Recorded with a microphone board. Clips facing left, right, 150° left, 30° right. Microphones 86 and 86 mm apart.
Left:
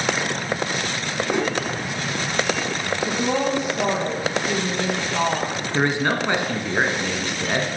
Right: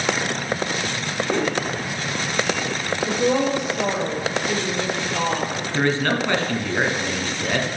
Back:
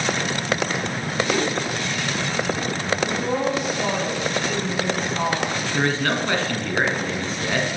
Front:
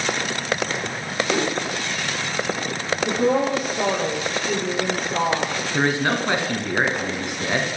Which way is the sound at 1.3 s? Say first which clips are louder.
Right 1 dB, front 1 dB; 30° left.